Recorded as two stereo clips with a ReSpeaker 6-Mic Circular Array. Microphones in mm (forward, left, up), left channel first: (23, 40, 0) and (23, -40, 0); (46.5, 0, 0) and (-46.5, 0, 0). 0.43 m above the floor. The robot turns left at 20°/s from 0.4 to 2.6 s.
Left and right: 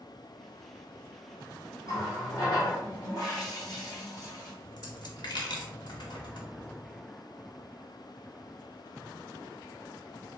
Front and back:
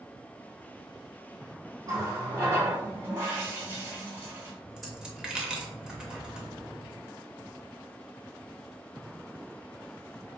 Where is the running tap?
140° left, 1.4 m; by 4.5 s 125° left, 1.4 m.